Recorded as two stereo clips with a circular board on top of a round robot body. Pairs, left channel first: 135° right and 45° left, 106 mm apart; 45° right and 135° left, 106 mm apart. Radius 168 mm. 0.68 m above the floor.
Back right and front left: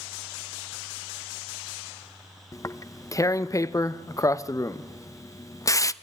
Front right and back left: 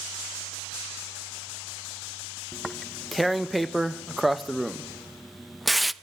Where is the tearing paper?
135° right, 0.8 m.